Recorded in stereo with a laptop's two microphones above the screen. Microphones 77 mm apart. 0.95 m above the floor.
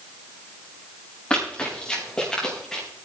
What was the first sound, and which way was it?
Running footsteps, 15° left (ahead or behind).